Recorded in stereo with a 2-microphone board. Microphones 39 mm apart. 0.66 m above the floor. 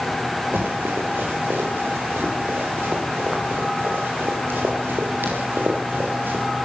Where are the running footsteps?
85° right, 8.5 m; by 6.5 s 65° right (ahead or behind), 9 m.